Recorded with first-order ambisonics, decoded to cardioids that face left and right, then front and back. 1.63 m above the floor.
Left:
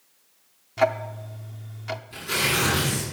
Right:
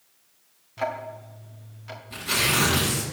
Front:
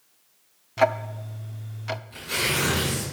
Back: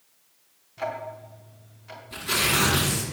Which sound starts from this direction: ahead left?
Ticking, at 0.8 s.